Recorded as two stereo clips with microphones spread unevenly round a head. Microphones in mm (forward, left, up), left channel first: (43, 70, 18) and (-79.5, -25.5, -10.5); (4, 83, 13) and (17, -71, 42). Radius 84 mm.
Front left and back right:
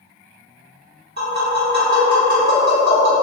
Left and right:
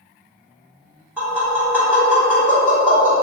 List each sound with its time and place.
1.2 s tapping: 165° right, 1.2 m